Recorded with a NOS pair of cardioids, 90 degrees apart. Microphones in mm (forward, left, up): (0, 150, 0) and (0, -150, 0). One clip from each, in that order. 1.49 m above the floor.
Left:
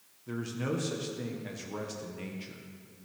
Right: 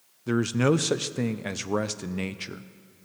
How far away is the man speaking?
About 0.5 m.